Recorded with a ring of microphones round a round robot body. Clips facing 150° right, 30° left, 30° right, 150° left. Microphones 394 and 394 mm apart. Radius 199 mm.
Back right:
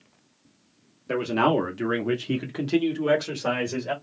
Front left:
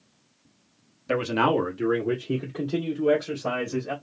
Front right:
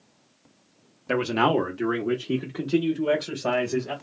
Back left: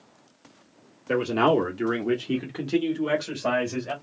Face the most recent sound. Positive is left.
turn(degrees=-150)